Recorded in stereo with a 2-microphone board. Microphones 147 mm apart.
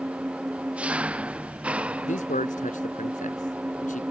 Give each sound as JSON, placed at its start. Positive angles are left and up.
{"t": 0.0, "sound": "an engine running", "side_deg": -10}
{"t": 2.0, "sound": "a man speaking", "side_deg": 60}